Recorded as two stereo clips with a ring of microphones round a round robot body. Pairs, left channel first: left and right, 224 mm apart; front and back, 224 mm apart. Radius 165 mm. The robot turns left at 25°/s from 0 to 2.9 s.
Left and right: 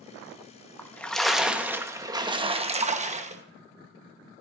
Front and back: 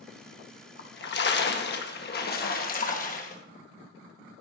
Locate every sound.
0.8 s a splash: 10° left, 1.1 m; by 3.4 s 40° right, 1.1 m